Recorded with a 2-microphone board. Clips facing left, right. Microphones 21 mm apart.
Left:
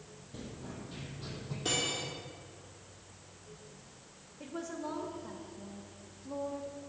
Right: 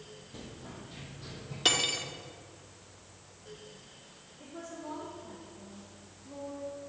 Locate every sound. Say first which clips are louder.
0.3 s running footsteps: left 2 dB; 15° right (ahead or behind), 2.5 m; by 1.6 s 15° left (ahead or behind), 3.5 m
1.6 s cutlery clinking: right 6 dB; 70° right (ahead or behind), 1.5 m
4.4 s a woman speaking: left 4 dB; 45° left (ahead or behind), 2 m